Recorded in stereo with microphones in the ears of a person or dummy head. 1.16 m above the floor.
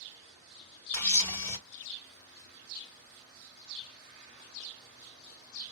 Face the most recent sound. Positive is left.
turn(degrees=15)  # may be behind; listen again after turning